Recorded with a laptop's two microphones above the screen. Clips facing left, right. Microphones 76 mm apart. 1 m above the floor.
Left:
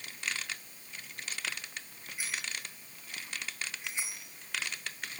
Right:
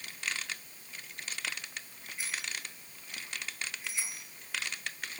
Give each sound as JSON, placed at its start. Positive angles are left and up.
{"t": 2.2, "sound": "a bicycle bell", "side_deg": 10, "distance_m": 7.0}